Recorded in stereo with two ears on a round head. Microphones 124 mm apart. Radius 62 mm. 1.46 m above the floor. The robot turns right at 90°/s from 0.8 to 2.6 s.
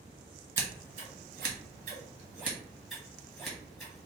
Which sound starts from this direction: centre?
Scissors, at 0.6 s.